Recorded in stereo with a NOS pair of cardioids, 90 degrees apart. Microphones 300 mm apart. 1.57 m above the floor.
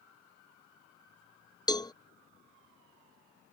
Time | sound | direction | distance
1.7 | a cowbell | 15° left | ?